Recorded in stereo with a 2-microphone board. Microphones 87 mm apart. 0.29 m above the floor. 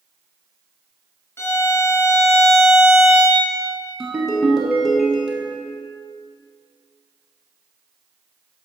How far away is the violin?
About 1.1 m.